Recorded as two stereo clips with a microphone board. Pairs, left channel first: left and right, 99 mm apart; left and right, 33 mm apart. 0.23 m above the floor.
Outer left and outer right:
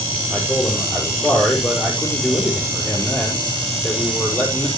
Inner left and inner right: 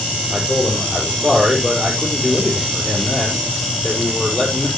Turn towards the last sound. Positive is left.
turn(degrees=15)  # may be behind; listen again after turning